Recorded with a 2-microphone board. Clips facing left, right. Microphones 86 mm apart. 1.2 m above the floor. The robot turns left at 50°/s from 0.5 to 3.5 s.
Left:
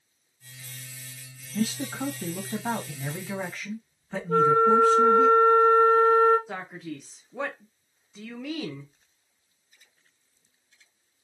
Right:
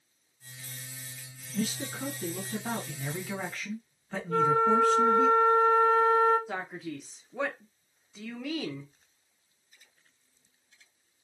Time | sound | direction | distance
1.5 | a man speaking | 105° left | 1.2 m
4.3 | a flute | 40° left (ahead or behind) | 1.9 m
6.5 | a man speaking | centre (ahead or behind) | 0.6 m